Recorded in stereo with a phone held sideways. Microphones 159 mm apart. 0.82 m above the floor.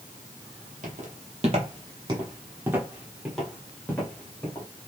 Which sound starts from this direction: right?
Footsteps, at 0.8 s.